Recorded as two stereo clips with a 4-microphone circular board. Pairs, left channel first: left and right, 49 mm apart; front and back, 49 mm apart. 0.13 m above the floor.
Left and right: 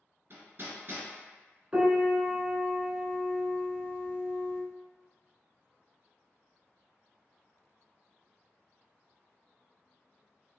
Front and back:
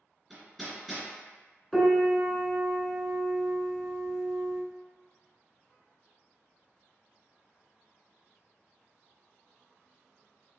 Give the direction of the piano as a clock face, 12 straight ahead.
3 o'clock.